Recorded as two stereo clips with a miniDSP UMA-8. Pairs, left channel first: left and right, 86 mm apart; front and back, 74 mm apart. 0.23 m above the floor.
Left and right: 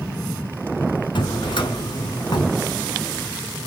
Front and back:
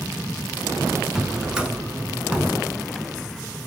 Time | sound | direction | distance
1.1 | a drawer | 105° left | 0.8 m